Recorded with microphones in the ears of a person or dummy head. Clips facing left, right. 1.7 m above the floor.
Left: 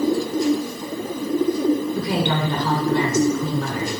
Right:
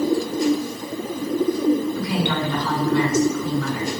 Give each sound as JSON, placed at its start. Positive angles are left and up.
{"t": 1.9, "sound": "a woman speaking", "side_deg": 35, "distance_m": 8.0}